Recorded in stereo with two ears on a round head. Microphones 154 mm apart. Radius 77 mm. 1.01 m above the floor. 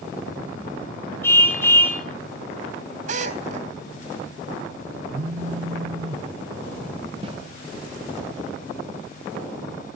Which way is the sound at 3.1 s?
45° right (ahead or behind).